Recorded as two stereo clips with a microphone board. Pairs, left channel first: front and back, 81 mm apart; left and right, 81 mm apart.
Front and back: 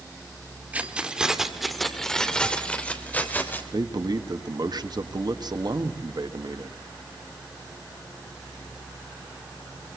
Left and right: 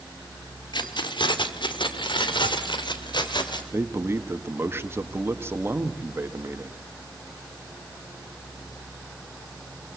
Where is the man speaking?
150° right, 1.6 m.